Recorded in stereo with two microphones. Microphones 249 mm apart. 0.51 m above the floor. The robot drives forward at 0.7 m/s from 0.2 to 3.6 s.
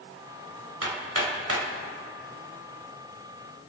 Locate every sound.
0.8 s hammering: 70° right (ahead or behind), 2 m; by 1.7 s 65° right (ahead or behind), 2 m